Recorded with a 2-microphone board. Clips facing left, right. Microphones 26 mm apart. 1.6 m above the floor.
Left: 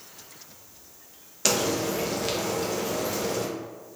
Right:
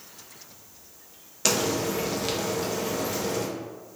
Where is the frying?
5° right (ahead or behind), 0.6 m.